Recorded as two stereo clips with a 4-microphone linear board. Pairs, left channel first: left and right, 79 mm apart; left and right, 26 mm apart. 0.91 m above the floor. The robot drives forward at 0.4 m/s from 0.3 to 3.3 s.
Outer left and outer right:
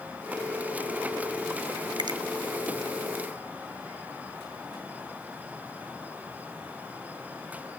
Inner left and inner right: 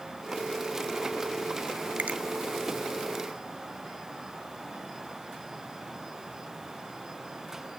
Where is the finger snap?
65° right (ahead or behind), 0.6 m; by 2.2 s 75° right (ahead or behind), 0.6 m.